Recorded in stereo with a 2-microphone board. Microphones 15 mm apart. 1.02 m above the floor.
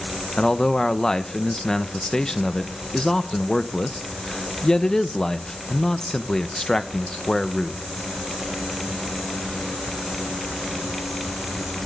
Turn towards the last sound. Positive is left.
turn(degrees=40)  # may be behind; listen again after turning